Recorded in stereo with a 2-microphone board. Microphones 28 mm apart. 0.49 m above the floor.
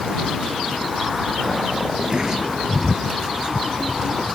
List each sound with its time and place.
1.9 s a sliding door: 25° right (ahead or behind)